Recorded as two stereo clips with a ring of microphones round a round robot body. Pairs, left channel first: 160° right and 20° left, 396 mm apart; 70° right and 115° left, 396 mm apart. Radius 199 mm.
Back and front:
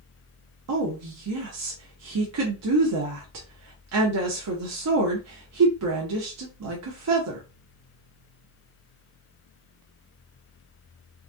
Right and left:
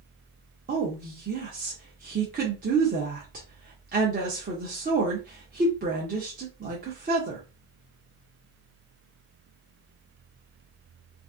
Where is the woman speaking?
55° left, 0.8 m.